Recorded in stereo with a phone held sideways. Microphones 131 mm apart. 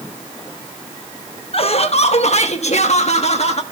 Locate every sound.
1.5 s laughter: 45° left (ahead or behind), 1.2 m; by 3.6 s 50° left (ahead or behind), 1.8 m